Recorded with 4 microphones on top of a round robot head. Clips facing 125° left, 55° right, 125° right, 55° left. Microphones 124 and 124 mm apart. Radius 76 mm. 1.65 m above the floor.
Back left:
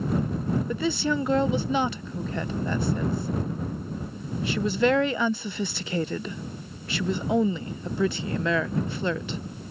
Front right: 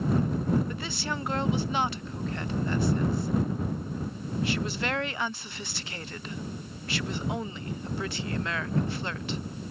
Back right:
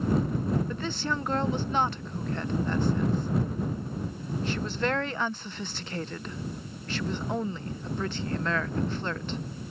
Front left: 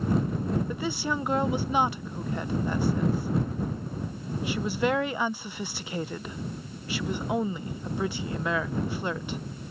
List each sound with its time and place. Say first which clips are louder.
0.7 s a woman speaking: back left 9 dB, front left 2 dB; 135° left